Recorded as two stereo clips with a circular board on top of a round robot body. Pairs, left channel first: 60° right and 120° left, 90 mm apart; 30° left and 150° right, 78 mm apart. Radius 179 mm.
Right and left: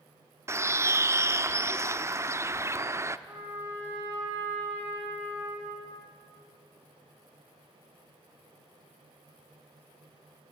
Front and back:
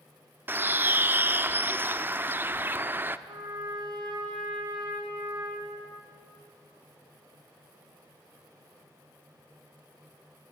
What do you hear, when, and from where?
0.5 s a bird: 160° left, 1.1 m
3.3 s a trumpet: straight behind, 8 m